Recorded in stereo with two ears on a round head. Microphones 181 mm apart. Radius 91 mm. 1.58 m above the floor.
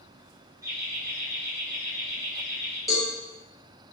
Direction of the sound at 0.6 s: 15° right (ahead or behind).